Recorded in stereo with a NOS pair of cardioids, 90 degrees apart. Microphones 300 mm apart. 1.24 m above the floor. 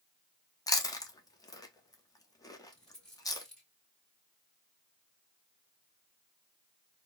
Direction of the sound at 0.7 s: 10° left.